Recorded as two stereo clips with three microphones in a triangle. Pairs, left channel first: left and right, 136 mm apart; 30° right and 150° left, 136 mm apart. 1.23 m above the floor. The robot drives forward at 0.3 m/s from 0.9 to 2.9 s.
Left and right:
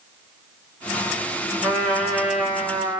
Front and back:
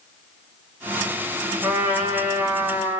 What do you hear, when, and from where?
1.6 s a trumpet: 165° right, 1.0 m; by 3.0 s 175° right, 1.2 m